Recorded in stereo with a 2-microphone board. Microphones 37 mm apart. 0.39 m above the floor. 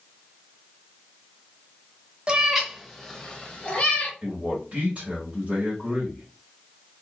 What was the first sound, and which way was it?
A cat meowing, 30° right (ahead or behind).